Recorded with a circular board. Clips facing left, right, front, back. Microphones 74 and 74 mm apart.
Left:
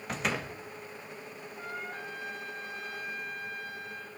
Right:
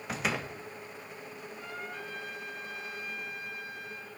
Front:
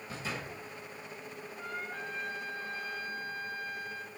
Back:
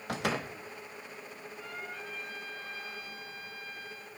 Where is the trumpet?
40° left, 3.5 m.